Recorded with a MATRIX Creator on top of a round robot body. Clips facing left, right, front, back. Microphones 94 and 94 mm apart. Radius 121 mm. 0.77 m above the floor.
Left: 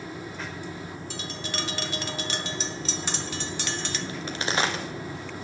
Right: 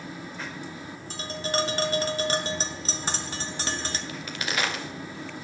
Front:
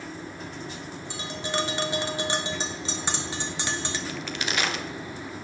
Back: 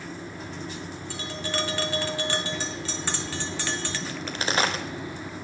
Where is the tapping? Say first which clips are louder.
Right 9 dB, front 2 dB; 60° right, 1.3 m.